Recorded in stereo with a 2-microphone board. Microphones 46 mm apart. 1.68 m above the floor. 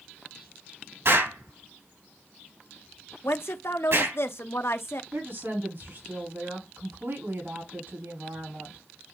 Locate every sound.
1.1 s an explosion: 65° right (ahead or behind), 3.5 m
3.2 s a woman speaking: 65° left (ahead or behind), 1.0 m
5.1 s a woman speaking: 60° right (ahead or behind), 5 m